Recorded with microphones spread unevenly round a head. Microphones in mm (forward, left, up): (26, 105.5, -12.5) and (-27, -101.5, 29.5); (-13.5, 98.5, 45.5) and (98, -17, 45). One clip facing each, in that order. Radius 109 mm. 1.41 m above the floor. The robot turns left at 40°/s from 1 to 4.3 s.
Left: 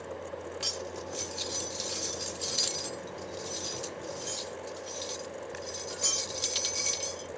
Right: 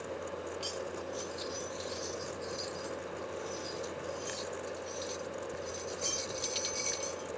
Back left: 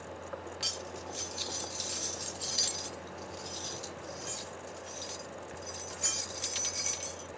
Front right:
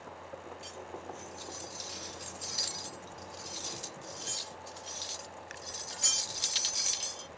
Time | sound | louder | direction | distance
0.6 | cutlery clinking | even, back left 2 dB | 140° left | ?